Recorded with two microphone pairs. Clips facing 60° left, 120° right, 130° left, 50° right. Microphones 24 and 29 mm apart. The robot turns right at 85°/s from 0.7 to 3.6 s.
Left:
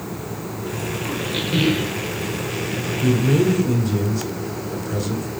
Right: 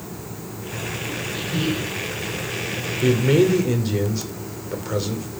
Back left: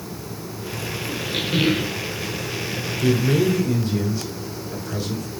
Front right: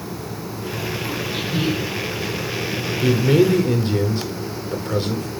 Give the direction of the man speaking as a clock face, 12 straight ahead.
4 o'clock.